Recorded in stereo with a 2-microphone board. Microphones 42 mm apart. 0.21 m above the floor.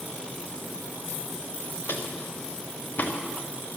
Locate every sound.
1.9 s footsteps: 70° left (ahead or behind), 2.5 m; by 3.1 s 45° left (ahead or behind), 2.5 m